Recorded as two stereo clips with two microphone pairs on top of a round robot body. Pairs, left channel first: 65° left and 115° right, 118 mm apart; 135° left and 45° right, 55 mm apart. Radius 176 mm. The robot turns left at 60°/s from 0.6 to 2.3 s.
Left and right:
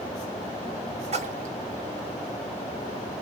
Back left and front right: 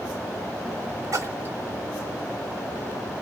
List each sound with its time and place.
1.1 s a splash: 85° right, 0.7 m; by 1.6 s 110° right, 0.7 m